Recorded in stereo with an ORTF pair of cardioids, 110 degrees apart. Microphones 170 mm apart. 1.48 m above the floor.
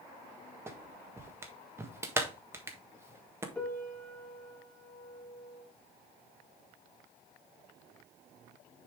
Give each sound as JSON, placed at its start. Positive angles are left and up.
{"t": 0.7, "sound": "a clap", "azimuth_deg": -15, "distance_m": 1.4}
{"t": 3.5, "sound": "a piano", "azimuth_deg": 10, "distance_m": 2.0}